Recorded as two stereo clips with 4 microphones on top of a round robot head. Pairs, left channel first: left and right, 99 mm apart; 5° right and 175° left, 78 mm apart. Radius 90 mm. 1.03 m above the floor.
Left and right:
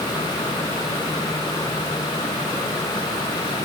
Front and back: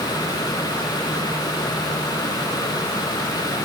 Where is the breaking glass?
No breaking glass in this recording.